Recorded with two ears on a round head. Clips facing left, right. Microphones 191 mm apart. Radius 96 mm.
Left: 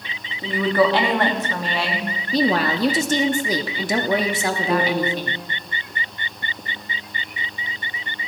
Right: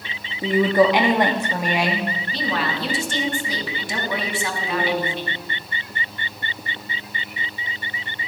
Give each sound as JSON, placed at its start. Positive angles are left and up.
{"t": 0.4, "sound": "a woman speaking", "side_deg": -15, "distance_m": 0.9}
{"t": 2.3, "sound": "a woman speaking", "side_deg": 35, "distance_m": 0.7}
{"t": 4.7, "sound": "a piano", "side_deg": 50, "distance_m": 2.0}